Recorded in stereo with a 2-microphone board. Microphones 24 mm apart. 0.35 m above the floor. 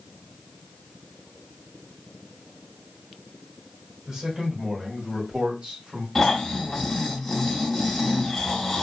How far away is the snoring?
About 1.2 m.